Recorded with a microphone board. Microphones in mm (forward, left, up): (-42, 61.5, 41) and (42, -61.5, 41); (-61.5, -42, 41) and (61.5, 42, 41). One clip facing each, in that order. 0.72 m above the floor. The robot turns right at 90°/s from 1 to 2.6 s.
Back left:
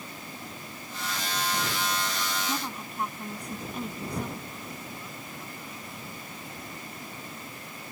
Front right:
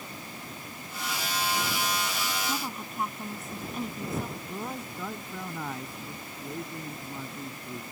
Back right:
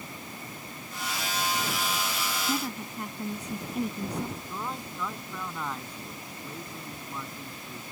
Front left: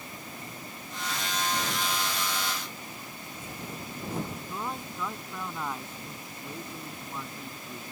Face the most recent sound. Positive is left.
turn(degrees=-50)